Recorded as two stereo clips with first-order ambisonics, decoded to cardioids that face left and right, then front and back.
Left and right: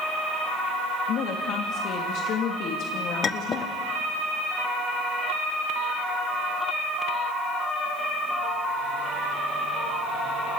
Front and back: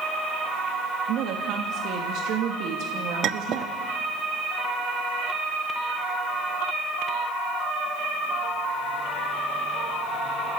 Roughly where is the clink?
Behind left.